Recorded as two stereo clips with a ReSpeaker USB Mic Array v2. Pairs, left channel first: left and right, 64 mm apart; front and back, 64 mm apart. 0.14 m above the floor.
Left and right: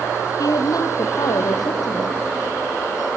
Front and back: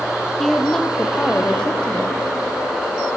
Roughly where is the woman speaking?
Left.